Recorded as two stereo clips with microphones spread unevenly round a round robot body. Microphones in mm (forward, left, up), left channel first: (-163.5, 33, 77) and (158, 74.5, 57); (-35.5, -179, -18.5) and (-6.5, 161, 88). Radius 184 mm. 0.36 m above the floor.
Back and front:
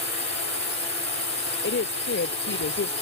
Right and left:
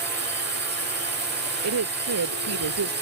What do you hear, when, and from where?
0.0 s a drone: 140° left
1.6 s a woman speaking: 130° left